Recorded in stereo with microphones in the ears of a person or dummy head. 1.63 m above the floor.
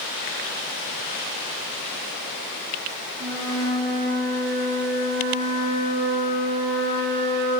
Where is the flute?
30° right (ahead or behind), 3 m.